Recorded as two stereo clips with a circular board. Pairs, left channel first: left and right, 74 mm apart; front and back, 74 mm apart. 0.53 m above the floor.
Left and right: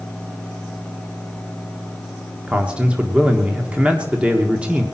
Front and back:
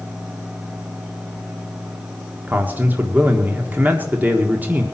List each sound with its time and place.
2.5 s a man speaking: 150° right, 1.3 m